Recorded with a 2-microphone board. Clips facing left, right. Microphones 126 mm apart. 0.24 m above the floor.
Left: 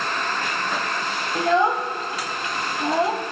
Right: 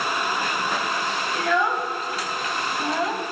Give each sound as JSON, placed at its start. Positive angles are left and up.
{"t": 1.4, "sound": "a child speaking", "side_deg": 30, "distance_m": 0.6}